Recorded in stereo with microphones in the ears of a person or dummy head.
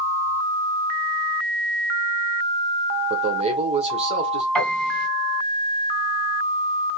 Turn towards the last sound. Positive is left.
turn(degrees=0)  # may be behind; listen again after turning